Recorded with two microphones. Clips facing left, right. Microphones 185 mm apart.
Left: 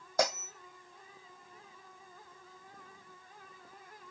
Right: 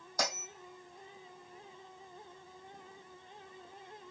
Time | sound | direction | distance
0.2 | a bell | 60° left (ahead or behind) | 2.5 m